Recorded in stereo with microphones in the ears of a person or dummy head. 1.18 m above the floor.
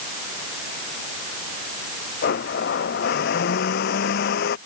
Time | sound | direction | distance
2.2 | a blender | 60° left (ahead or behind) | ?